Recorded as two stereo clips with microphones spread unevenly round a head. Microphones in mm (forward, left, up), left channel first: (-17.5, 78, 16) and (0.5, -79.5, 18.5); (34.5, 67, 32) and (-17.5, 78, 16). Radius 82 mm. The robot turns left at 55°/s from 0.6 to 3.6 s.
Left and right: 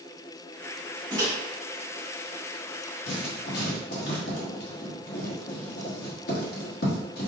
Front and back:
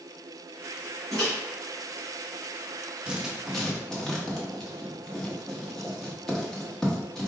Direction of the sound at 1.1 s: 150° right.